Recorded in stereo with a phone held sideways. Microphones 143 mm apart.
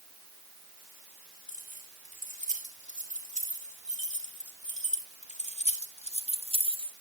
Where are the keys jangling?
60° left (ahead or behind), 4 m; by 6.9 s 35° left (ahead or behind), 1.0 m.